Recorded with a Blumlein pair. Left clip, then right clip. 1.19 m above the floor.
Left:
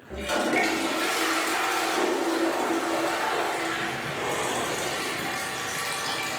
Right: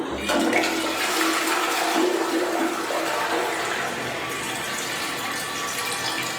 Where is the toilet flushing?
65° right, 1.2 m.